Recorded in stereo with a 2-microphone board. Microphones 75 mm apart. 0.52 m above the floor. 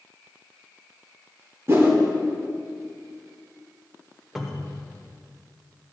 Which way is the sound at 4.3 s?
Centre (ahead or behind).